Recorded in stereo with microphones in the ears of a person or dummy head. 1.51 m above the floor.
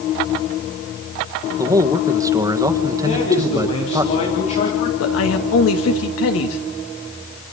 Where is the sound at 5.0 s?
80° left, 2.5 m.